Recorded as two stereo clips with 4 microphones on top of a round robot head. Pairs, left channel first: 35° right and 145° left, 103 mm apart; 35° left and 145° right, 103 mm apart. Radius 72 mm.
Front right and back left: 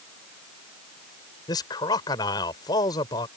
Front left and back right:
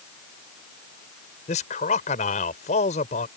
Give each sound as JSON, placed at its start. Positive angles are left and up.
{"t": 1.5, "sound": "a man speaking", "azimuth_deg": 20}